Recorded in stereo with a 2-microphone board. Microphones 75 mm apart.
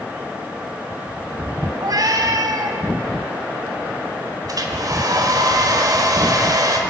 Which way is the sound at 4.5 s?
55° right (ahead or behind).